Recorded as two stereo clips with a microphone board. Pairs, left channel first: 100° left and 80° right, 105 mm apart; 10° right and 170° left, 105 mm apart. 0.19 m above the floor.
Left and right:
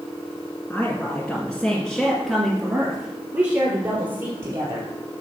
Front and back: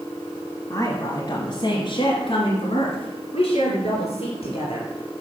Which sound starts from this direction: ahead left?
A woman speaking, at 0.7 s.